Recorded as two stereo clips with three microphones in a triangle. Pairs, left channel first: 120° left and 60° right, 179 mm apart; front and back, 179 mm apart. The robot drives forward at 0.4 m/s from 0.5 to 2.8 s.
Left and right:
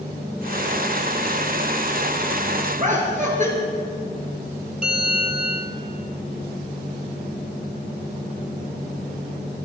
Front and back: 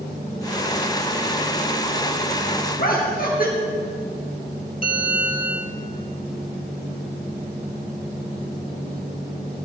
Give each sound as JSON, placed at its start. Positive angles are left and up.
{"t": 2.8, "sound": "laughter", "azimuth_deg": -25, "distance_m": 2.5}
{"t": 4.8, "sound": "a bell", "azimuth_deg": -145, "distance_m": 2.5}